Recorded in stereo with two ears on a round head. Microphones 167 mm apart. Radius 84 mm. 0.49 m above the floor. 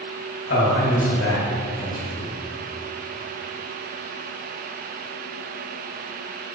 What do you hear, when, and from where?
0.5 s a man speaking: 70° left (ahead or behind), 2 m